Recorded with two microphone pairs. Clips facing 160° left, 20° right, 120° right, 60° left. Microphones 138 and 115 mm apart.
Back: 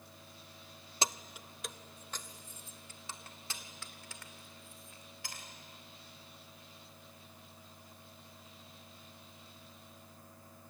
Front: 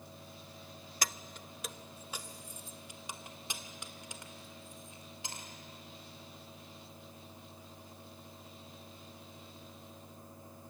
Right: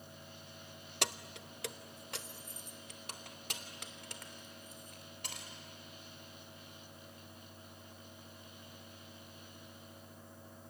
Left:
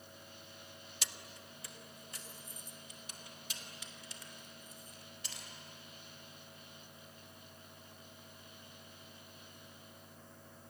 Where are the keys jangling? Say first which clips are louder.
Back 3 dB, right 12 dB; 140° right, 0.5 m; by 5.5 s 90° right, 3.5 m.